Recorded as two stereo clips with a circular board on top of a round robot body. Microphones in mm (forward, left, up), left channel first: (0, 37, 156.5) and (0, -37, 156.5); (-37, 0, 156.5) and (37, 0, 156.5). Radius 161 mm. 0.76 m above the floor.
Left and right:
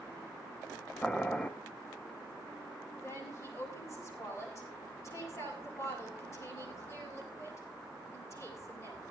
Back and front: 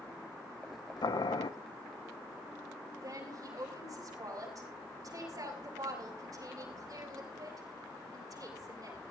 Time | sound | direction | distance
1.0 | boiling | 170° left | 1.0 m
2.9 | a woman speaking | 40° left | 6 m